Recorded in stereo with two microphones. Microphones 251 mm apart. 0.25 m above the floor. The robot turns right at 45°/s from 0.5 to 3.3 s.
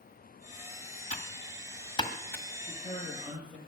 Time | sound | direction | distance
1.1 | typing on a keyboard | 35° left (ahead or behind) | 1.5 m
2.6 | a man speaking | 145° left | 7 m